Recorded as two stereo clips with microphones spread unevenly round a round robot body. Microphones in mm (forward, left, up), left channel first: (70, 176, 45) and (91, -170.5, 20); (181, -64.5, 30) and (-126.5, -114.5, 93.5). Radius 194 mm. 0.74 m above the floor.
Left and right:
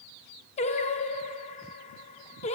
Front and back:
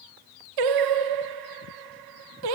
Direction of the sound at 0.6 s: 170° left.